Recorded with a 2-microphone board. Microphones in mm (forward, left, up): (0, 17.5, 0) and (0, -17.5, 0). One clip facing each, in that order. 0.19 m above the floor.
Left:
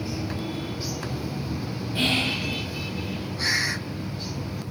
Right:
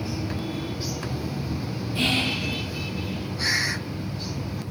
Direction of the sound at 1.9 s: 35° left (ahead or behind).